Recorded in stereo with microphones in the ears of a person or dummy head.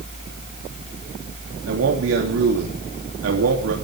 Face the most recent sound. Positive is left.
turn(degrees=-80)